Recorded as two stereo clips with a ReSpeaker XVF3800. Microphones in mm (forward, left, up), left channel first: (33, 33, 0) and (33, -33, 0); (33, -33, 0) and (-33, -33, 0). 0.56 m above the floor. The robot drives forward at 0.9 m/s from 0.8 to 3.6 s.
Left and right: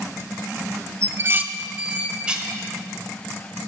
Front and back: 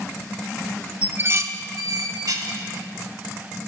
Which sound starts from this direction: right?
Dishes clattering, at 1.0 s.